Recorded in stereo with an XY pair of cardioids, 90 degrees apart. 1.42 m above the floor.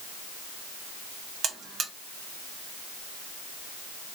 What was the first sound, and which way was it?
A buzzer, 65° right.